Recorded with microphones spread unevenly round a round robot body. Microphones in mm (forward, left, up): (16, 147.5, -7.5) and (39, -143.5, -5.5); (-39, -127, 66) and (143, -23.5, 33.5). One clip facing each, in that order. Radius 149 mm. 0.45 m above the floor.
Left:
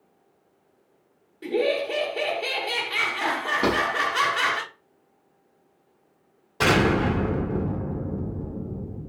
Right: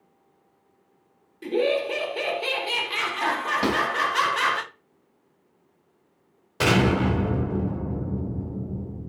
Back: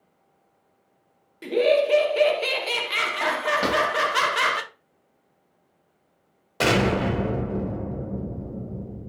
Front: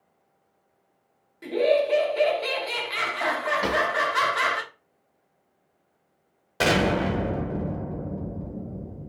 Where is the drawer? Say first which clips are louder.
Left 1 dB, back 2 dB; 120° right, 1.4 m.